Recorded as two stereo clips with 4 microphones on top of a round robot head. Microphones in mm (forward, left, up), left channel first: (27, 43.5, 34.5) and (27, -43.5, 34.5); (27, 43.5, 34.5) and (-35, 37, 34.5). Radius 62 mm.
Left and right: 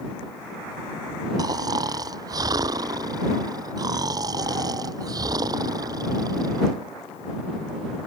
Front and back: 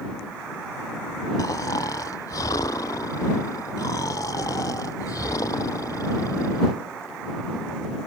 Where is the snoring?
45° right.